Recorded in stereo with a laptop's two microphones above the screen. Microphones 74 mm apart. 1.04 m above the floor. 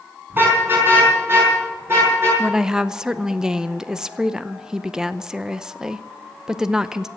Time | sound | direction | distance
0.3 | a car horn | 30° right (ahead or behind) | 4 m
2.4 | a woman speaking | 10° right (ahead or behind) | 0.6 m